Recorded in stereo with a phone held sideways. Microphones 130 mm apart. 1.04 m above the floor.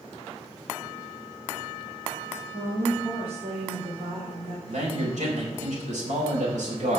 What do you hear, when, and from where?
2.5 s a woman speaking: 55° right (ahead or behind), 2.5 m
4.7 s a man speaking: 80° right, 5 m